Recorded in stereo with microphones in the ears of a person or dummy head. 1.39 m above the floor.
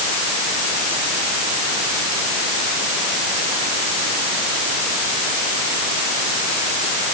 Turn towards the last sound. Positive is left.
No sound to turn to.